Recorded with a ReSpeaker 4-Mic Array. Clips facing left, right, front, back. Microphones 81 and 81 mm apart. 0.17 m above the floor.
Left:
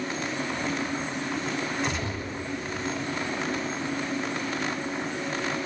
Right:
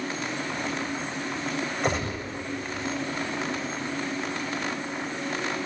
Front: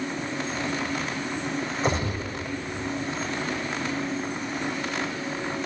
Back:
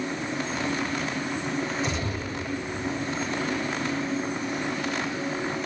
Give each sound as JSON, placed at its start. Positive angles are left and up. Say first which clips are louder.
{"t": 1.8, "sound": "a gunshot", "louder": "right 3 dB, front 3 dB", "azimuth_deg": -45, "distance_m": 7.5}